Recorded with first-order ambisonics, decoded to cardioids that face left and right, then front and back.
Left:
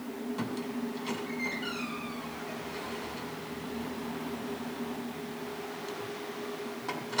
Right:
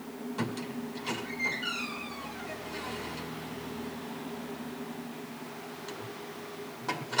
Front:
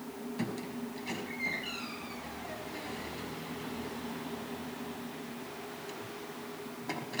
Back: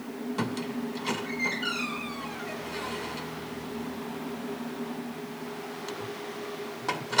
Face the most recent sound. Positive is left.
turn(degrees=-175)